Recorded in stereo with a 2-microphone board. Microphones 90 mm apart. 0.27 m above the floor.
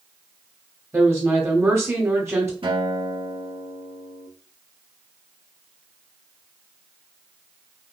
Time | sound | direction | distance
0.9 | a woman speaking | 30° right (ahead or behind) | 1.1 m
2.6 | a guitar | 75° right (ahead or behind) | 2.0 m